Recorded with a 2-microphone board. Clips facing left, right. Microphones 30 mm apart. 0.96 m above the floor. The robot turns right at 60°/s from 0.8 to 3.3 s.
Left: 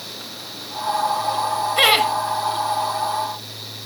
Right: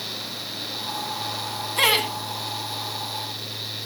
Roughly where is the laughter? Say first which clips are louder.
Left 4 dB; left.